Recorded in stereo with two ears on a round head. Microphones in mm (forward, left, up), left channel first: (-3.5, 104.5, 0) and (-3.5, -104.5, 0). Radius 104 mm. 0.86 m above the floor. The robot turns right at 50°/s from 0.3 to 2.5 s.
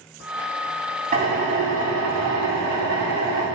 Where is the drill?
145° right, 6 m; by 3.5 s 80° right, 6 m.